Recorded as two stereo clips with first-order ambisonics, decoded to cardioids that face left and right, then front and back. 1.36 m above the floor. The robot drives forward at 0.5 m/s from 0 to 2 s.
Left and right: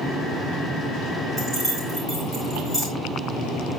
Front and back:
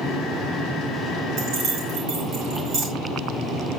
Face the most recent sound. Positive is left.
turn(degrees=170)